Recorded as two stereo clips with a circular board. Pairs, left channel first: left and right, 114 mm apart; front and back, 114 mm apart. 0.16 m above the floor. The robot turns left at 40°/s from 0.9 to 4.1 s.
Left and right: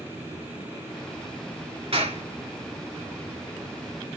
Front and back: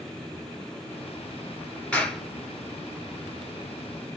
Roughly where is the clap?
Right.